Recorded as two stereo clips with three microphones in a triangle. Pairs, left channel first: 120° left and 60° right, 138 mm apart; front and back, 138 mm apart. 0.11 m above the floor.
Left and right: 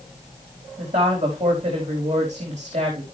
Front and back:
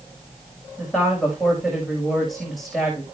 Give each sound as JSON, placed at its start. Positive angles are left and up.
{"t": 0.8, "sound": "a woman speaking", "azimuth_deg": -90, "distance_m": 5.5}